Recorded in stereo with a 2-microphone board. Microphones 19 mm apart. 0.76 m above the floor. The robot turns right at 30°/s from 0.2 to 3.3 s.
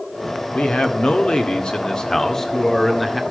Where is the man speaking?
100° left, 1.7 m; by 3.2 s straight behind, 1.7 m.